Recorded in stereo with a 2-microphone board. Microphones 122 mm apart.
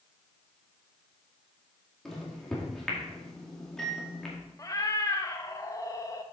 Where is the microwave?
5° left (ahead or behind), 2.0 m.